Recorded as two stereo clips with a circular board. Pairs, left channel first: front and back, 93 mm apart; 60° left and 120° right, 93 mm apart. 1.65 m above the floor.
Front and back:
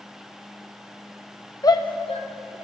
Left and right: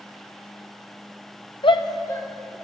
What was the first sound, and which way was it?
A shout, 50° left.